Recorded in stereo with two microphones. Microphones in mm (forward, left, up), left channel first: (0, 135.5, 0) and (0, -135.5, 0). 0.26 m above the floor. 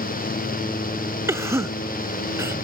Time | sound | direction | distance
1.3 | a cough | 10° right (ahead or behind) | ?